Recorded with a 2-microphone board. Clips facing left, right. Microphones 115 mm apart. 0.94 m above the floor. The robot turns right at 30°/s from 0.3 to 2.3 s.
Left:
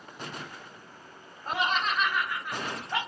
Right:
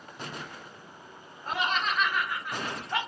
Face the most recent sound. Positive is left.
turn(degrees=-10)  # may be behind; listen again after turning